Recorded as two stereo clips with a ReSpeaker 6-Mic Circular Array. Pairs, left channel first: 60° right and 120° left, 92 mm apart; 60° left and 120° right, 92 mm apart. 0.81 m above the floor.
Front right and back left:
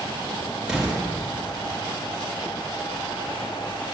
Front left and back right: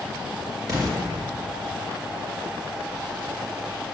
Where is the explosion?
160° right, 1.8 m.